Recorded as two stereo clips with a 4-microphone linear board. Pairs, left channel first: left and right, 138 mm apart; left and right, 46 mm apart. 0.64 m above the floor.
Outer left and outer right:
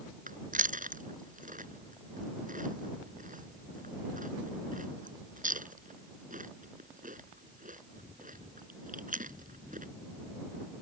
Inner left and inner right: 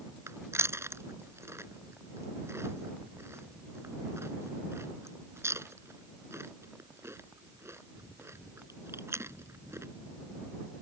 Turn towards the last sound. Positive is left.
turn(degrees=-75)  # may be behind; listen again after turning